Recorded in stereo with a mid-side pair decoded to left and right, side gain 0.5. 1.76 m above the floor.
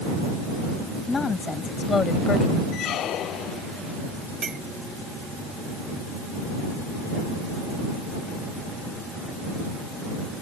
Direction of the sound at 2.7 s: 65° left.